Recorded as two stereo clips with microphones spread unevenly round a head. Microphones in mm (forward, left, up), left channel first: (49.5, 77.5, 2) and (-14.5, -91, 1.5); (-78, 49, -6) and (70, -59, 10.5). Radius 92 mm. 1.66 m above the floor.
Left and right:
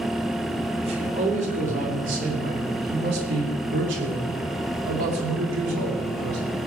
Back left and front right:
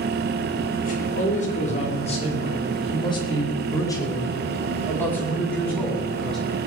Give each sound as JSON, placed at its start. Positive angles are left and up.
{"t": 0.8, "sound": "a man speaking", "azimuth_deg": -170, "distance_m": 4.0}